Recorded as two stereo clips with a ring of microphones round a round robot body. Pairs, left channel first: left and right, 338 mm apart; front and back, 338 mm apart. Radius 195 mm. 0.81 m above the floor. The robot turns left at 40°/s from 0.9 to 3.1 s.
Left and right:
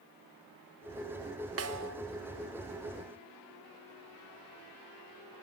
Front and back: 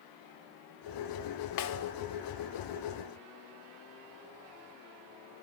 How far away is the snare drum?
About 2 m.